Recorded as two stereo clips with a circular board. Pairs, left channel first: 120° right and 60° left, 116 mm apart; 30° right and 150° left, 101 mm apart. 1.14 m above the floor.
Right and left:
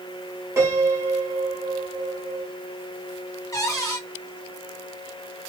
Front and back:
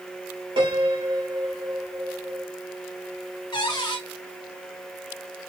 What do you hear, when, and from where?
0.6 s a piano: 125° left, 1.0 m
3.5 s a cupboard door: 60° right, 0.9 m